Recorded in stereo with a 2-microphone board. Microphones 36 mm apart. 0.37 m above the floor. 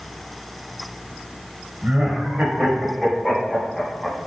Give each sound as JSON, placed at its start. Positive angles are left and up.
{"t": 1.8, "sound": "laughter", "side_deg": -50, "distance_m": 1.3}